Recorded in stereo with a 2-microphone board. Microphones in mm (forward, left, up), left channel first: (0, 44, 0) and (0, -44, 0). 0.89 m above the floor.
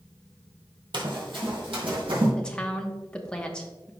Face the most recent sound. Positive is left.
turn(degrees=10)  # may be behind; listen again after turning